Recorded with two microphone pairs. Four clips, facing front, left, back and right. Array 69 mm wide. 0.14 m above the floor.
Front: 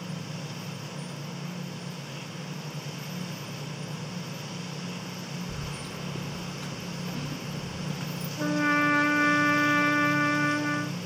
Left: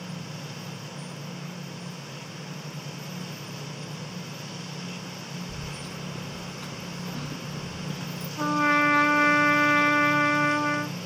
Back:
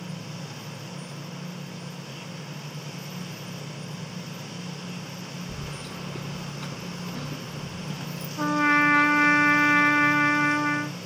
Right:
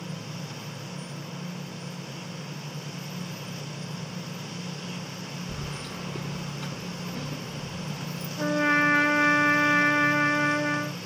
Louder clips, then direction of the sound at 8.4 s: Left 1 dB, back 4 dB; 140° left.